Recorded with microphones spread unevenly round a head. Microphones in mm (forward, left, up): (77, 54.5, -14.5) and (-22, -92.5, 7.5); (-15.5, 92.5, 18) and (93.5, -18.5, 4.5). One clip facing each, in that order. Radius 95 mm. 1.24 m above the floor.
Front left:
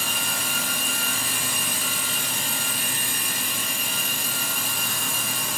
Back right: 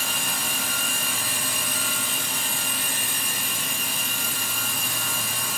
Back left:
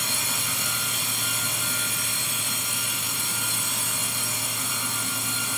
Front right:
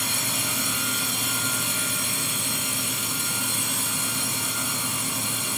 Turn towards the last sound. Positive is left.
No sound to turn to.